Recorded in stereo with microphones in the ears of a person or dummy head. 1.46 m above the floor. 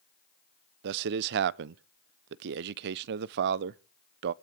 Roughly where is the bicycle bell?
I don't hear a bicycle bell.